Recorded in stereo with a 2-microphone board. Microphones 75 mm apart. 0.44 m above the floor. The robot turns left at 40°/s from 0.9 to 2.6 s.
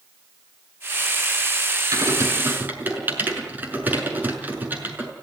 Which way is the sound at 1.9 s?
55° right (ahead or behind).